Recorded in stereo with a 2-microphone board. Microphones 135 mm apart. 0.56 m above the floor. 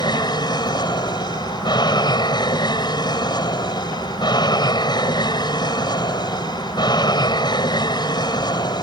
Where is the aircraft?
30° left (ahead or behind).